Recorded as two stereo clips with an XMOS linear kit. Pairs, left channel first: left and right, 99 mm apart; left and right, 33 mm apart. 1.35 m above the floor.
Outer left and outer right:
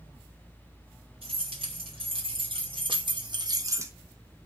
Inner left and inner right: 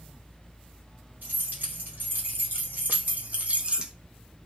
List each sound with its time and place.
1.2 s keys jangling: 70° right (ahead or behind), 2 m; by 3.9 s 25° right (ahead or behind), 0.6 m